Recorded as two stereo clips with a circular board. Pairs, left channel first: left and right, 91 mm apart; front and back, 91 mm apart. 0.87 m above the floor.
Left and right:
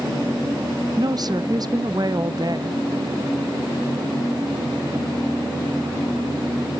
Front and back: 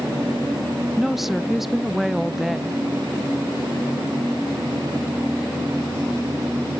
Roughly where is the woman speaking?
Right.